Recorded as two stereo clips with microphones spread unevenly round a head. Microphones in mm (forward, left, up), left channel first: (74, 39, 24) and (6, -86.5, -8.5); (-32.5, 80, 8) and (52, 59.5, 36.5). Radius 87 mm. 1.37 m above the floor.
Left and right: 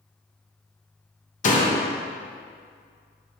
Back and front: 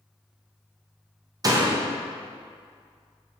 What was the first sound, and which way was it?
A door slam, 30° left.